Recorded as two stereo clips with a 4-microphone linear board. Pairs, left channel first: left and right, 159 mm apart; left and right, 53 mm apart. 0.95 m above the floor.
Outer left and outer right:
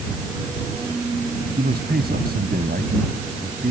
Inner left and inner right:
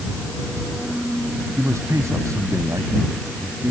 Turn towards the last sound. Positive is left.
turn(degrees=-80)